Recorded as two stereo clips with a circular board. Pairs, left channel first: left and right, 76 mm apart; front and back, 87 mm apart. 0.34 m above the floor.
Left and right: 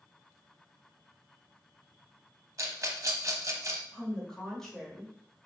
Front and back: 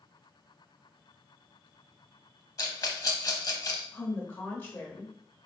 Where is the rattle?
45° right, 0.7 m.